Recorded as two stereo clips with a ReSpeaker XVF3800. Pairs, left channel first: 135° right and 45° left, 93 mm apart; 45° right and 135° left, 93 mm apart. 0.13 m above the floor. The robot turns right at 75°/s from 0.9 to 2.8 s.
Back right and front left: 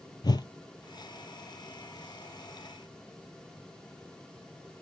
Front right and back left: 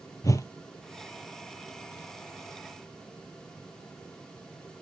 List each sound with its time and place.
0.2 s a whoosh: 95° right, 0.6 m